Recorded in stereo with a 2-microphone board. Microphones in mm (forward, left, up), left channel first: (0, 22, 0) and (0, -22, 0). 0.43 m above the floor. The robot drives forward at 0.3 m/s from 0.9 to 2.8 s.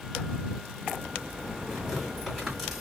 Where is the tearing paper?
Centre (ahead or behind), 2 m.